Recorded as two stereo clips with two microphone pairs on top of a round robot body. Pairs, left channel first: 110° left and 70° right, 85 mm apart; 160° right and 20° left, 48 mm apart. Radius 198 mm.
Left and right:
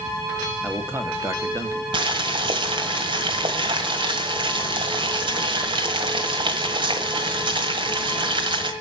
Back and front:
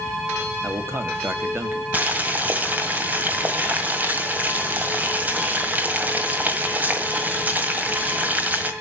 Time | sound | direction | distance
0.6 | a man speaking | 5° right | 1.8 m
1.9 | boiling | 40° right | 1.6 m